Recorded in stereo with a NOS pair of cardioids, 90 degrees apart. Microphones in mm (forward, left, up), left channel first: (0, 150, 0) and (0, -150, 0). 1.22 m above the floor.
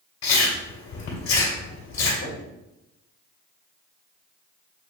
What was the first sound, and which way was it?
Chewing, 65° left.